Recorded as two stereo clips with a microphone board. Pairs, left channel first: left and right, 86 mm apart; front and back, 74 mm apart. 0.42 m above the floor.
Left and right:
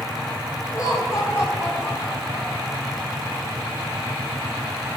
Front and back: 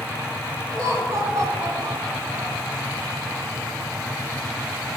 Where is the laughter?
135° left, 3.5 m; by 2.7 s 165° left, 4 m.